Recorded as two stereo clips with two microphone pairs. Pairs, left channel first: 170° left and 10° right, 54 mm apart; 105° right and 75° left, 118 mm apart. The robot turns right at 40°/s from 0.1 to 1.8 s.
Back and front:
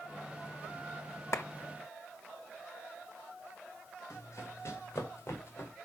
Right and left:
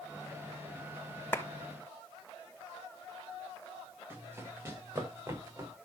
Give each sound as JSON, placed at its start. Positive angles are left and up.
{"t": 1.3, "sound": "a clap", "azimuth_deg": 180, "distance_m": 1.3}
{"t": 4.1, "sound": "running footsteps", "azimuth_deg": 145, "distance_m": 6.0}